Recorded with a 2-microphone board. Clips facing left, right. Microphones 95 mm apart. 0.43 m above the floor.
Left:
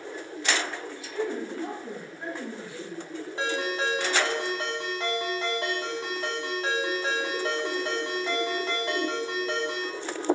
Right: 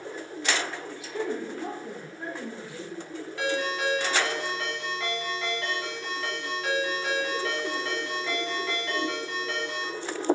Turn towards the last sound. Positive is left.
turn(degrees=25)  # may be behind; listen again after turning